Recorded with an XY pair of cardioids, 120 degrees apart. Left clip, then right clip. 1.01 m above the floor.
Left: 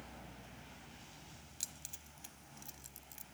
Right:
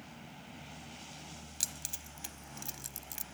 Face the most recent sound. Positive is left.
turn(degrees=-60)